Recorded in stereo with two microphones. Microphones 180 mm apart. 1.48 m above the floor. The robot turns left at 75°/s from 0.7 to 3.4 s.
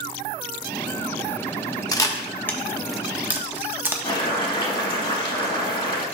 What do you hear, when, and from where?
1.9 s a camera shutter: 20° left (ahead or behind), 1.0 m; by 3.9 s 10° right (ahead or behind), 1.0 m
4.0 s boiling: 30° left (ahead or behind), 2.5 m